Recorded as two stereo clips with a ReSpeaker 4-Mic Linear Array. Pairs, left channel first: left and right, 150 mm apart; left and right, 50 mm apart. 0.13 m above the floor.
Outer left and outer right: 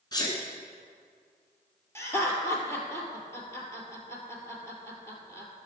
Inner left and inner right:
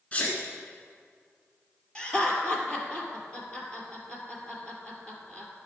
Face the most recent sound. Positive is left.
turn(degrees=15)  # may be behind; listen again after turning